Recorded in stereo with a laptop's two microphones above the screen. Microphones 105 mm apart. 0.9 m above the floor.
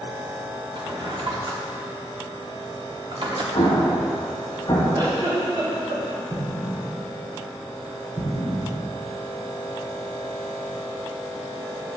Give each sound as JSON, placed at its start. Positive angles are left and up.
{"t": 0.8, "sound": "a drawer", "side_deg": -50, "distance_m": 0.9}
{"t": 3.5, "sound": "an explosion", "side_deg": 40, "distance_m": 1.4}
{"t": 4.9, "sound": "a giggle", "side_deg": -40, "distance_m": 2.5}
{"t": 6.3, "sound": "an explosion", "side_deg": -50, "distance_m": 2.5}